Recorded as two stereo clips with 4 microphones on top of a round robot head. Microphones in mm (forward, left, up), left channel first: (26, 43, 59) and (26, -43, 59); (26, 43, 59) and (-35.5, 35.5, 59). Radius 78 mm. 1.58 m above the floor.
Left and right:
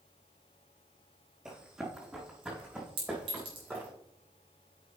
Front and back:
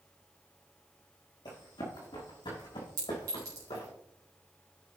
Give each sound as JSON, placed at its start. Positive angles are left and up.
{"t": 1.4, "sound": "running footsteps", "azimuth_deg": -10, "distance_m": 5.0}
{"t": 3.0, "sound": "a clink", "azimuth_deg": -125, "distance_m": 3.5}